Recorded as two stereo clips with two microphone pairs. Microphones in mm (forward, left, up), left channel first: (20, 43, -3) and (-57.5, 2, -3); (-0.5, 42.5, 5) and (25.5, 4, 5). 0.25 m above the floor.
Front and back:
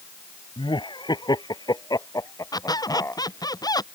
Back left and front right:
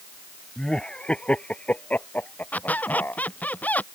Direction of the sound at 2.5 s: 70° left.